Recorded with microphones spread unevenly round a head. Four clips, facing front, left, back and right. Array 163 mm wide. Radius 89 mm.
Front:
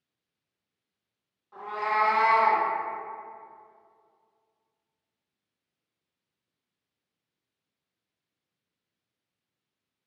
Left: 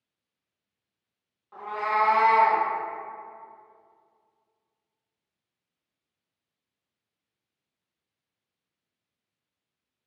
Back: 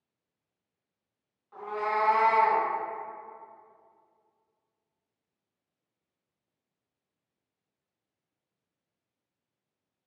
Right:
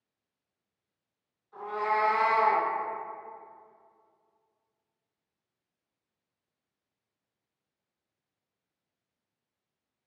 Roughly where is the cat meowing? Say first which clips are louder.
Left 2 dB, front 2 dB; left.